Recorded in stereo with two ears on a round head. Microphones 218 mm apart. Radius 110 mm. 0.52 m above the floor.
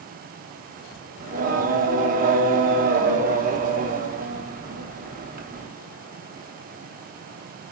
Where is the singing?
35° right (ahead or behind), 0.8 m.